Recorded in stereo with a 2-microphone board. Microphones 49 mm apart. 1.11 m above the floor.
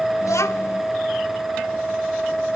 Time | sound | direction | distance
0.2 | a child speaking | 75° left (ahead or behind) | 1.2 m